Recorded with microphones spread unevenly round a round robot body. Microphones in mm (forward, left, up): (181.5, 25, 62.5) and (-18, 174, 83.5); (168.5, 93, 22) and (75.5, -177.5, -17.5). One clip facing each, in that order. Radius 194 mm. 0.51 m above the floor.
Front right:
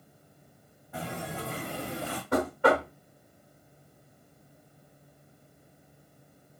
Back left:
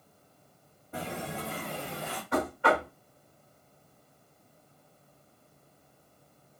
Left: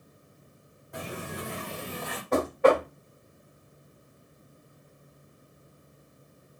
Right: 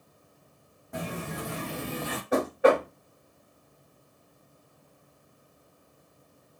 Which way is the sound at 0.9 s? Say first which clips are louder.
Even, right 2 dB; 150° right.